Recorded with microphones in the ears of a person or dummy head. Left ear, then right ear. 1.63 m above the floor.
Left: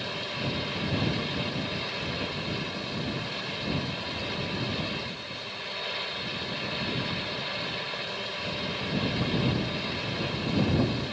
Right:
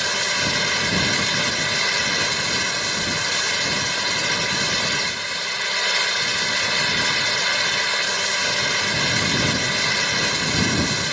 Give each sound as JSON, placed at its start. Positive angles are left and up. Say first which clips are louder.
{"t": 0.0, "sound": "a fan", "louder": "right 12 dB", "side_deg": -65}